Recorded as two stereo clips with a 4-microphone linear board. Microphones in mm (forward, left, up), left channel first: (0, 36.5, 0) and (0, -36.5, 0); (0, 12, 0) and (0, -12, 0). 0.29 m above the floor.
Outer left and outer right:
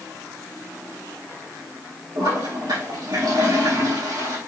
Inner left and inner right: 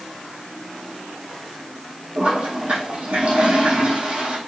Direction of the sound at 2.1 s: 85° right.